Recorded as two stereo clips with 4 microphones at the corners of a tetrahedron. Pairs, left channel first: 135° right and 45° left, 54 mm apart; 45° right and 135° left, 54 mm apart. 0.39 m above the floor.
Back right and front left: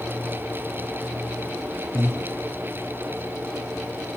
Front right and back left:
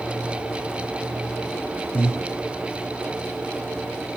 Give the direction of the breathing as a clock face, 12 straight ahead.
12 o'clock.